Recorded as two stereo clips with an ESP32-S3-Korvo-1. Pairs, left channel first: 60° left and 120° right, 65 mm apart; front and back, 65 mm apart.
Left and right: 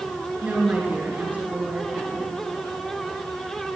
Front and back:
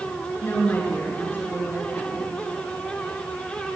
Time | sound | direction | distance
0.4 | a woman speaking | 55° right | 4 m